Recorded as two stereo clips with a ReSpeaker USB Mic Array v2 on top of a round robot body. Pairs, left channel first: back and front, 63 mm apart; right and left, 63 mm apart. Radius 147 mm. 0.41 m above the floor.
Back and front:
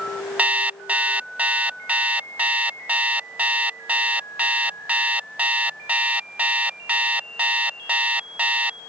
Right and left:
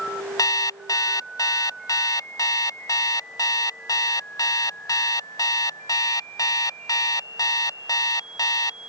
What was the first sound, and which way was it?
An alarm clock, 65° right.